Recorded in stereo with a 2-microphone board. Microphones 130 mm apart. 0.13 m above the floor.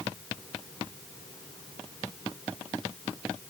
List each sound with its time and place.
Only background noise.